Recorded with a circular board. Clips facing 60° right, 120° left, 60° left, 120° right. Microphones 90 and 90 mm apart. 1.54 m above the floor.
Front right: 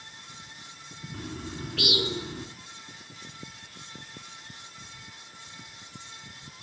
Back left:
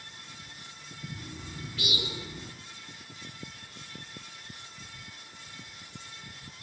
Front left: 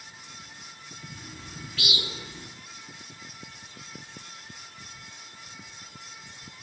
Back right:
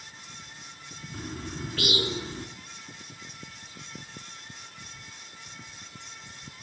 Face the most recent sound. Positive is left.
turn(degrees=-75)